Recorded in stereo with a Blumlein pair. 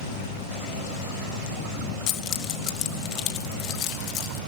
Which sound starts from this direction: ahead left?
Keys jangling, at 2.1 s.